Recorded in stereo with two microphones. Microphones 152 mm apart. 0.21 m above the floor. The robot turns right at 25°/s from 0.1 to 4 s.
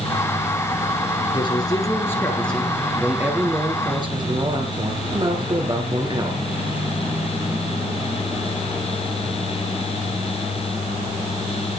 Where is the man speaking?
145° left, 3.5 m; by 6.4 s 145° right, 3.5 m.